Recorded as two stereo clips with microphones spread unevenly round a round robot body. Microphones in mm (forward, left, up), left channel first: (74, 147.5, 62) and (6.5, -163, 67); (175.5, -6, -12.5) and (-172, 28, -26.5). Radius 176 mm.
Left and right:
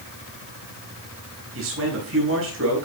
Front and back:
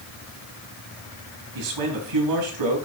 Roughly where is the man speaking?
Behind right.